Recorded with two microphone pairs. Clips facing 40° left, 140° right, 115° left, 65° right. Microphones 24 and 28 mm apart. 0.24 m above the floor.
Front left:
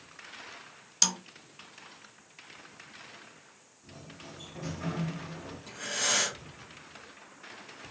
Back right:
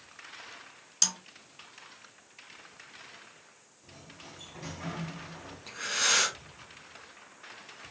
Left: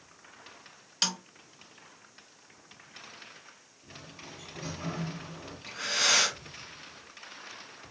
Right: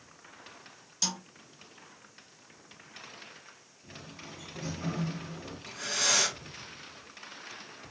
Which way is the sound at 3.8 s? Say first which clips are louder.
Front left 2 dB, right 1 dB; 175° left.